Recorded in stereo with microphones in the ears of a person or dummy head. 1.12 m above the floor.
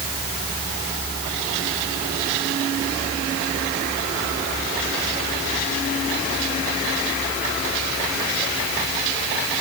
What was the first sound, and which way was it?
Only background noise.